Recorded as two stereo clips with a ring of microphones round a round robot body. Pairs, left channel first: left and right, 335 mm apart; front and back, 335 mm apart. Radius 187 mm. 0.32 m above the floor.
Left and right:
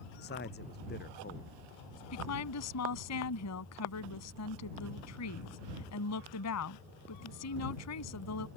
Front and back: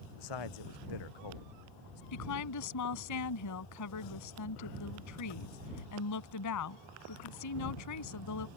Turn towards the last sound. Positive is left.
turn(degrees=45)